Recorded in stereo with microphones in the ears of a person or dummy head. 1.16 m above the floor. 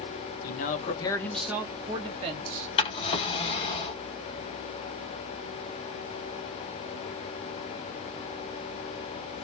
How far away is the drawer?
About 1.1 m.